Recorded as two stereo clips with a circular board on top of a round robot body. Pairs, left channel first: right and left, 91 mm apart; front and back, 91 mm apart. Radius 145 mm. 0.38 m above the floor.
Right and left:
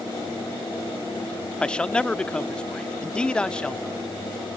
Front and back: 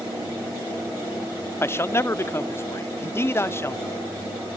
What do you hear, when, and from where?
1.6 s a man speaking: 20° right